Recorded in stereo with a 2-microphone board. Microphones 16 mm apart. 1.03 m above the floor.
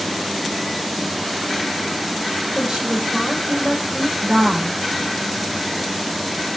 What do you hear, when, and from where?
2.5 s a woman speaking: 70° right (ahead or behind), 6.5 m